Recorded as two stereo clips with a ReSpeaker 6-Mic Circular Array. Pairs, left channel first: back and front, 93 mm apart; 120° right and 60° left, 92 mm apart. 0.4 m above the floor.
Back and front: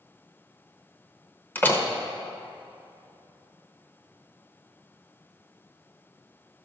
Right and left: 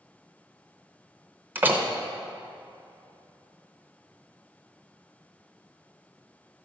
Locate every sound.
1.6 s a door slam: 120° left, 0.8 m